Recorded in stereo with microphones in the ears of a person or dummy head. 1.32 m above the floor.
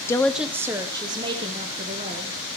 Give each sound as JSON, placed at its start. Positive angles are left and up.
{"t": 0.1, "sound": "a woman speaking", "side_deg": 15, "distance_m": 0.5}